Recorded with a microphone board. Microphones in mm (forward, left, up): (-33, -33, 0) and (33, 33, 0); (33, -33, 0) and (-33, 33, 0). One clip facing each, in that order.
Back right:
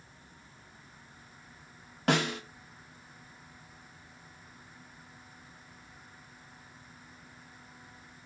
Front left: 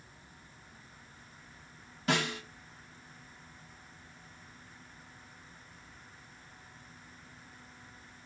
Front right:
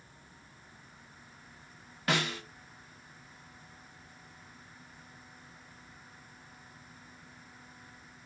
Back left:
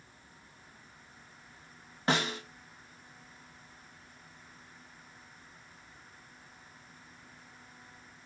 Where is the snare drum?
160° right, 3 m.